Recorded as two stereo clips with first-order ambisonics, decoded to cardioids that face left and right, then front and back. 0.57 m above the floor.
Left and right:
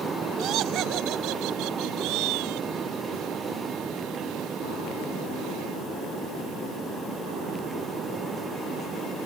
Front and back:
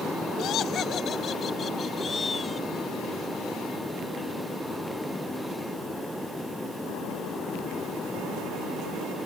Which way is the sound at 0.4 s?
50° right.